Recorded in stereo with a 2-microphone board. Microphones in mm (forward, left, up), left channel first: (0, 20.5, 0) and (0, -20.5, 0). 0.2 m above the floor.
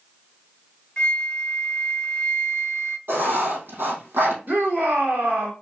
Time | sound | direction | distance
1.0 | a flute | 25° left (ahead or behind) | 0.7 m
3.1 | writing | 70° right (ahead or behind) | 3 m
4.5 | a shout | 55° right (ahead or behind) | 2.5 m